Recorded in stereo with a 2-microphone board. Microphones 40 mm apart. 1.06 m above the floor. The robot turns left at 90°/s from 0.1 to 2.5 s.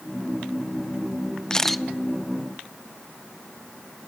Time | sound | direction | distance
1.5 | a camera shutter | 25° left | 0.7 m